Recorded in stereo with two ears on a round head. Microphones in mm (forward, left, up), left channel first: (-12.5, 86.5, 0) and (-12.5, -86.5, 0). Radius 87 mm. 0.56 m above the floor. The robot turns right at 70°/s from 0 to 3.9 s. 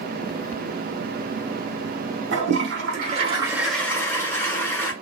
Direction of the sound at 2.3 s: 100° right.